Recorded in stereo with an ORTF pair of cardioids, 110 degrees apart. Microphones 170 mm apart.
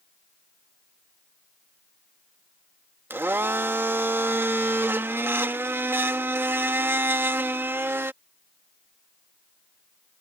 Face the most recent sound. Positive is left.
turn(degrees=-15)